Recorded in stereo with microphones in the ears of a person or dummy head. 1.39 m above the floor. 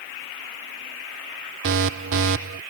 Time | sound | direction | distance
1.6 | an alarm | 70° right (ahead or behind) | ?